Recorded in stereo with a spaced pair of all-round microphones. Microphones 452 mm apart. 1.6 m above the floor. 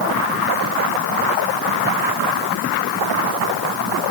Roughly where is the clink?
I don't hear a clink.